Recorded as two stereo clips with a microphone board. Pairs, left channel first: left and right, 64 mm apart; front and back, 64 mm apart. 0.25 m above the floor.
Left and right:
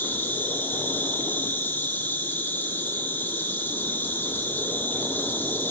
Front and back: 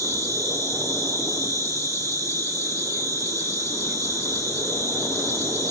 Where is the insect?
150° left, 3.5 m.